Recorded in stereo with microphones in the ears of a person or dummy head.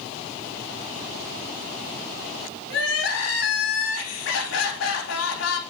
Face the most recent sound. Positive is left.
turn(degrees=75)  # may be behind; listen again after turning